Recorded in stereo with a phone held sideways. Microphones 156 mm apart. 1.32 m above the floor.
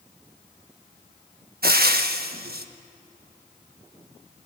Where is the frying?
80° right, 1.3 m.